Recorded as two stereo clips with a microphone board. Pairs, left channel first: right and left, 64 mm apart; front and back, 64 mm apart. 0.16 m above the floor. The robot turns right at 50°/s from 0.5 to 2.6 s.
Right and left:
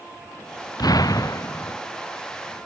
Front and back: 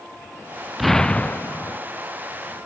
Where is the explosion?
90° right; by 1.8 s 40° right.